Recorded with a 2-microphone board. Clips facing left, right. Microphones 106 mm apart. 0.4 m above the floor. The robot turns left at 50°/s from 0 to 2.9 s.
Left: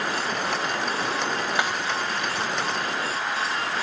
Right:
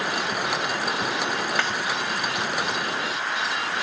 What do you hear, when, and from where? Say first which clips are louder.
1.6 s a snare drum: left 3 dB; 15° left (ahead or behind), 1.5 m; by 1.8 s 10° left (ahead or behind), 1.5 m